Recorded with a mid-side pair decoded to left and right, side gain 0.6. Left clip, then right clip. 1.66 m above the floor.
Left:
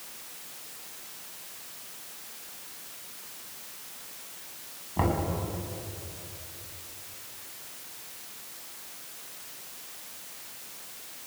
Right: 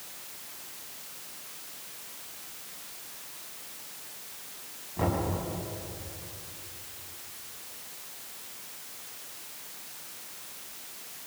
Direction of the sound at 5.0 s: 45° left.